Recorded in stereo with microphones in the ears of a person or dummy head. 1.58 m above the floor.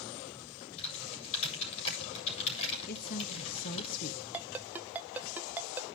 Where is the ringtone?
10° right (ahead or behind), 0.8 m.